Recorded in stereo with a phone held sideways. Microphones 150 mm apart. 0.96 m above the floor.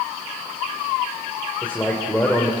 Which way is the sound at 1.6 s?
10° left (ahead or behind).